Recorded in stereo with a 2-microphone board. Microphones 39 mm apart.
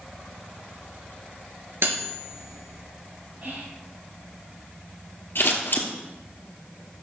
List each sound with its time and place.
1.8 s cutlery clinking: 75° right (ahead or behind), 2 m
3.4 s whispering: 50° right (ahead or behind), 3 m
5.3 s scissors: 60° left (ahead or behind), 1.9 m